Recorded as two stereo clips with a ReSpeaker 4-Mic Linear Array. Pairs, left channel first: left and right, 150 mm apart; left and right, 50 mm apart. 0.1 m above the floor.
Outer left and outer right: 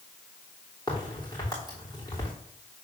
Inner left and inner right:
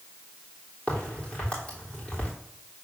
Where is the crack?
25° left (ahead or behind), 3.5 m.